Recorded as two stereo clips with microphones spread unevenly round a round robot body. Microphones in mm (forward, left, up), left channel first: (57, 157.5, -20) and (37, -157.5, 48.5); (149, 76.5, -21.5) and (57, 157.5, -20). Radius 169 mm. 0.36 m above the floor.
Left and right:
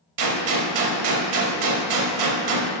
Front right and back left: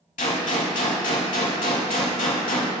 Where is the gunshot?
60° right, 0.9 m.